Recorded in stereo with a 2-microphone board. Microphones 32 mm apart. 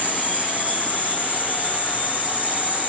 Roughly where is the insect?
Right.